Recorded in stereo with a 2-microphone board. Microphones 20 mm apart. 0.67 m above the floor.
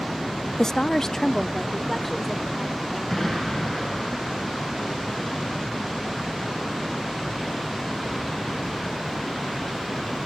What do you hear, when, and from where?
0.6 s a woman speaking: 25° left (ahead or behind), 0.5 m; by 3.0 s 15° left (ahead or behind), 3 m
3.1 s an explosion: 10° left (ahead or behind), 6.5 m